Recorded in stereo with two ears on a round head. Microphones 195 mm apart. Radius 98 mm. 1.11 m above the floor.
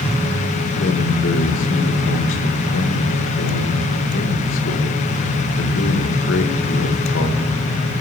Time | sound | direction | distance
0.8 | a man speaking | 60° left (ahead or behind) | 1.3 m